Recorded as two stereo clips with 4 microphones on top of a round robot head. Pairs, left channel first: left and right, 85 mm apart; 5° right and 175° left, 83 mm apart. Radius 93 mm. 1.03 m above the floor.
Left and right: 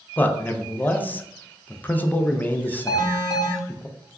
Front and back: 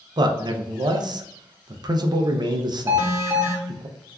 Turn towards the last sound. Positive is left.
turn(degrees=125)